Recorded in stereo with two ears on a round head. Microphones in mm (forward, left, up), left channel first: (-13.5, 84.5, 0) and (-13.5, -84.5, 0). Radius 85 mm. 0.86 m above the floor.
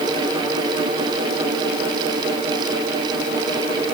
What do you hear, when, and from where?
Only background noise.